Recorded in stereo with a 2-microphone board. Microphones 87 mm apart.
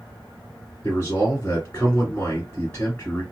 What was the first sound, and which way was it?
A man speaking, 20° left (ahead or behind).